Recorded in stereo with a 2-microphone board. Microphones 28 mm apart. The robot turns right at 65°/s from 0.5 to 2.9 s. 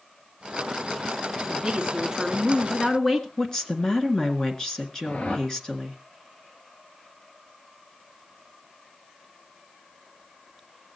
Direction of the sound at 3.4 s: 25° left (ahead or behind).